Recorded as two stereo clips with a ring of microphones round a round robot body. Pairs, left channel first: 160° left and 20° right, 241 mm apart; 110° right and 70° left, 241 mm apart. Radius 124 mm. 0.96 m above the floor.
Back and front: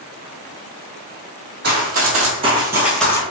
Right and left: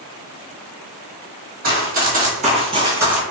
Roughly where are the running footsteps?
Ahead.